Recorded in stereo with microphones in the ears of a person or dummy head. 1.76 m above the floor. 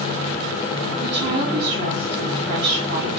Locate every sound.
1.0 s a woman speaking: 55° right (ahead or behind), 2.5 m